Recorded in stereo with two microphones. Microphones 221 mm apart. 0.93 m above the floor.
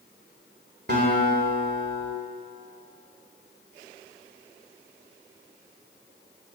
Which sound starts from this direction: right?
A guitar, at 0.9 s.